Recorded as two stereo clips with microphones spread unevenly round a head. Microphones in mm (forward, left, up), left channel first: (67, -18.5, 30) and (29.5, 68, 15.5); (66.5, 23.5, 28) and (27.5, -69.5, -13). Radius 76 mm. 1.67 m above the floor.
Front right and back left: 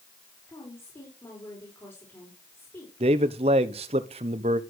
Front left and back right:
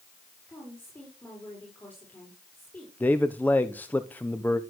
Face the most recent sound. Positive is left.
turn(degrees=150)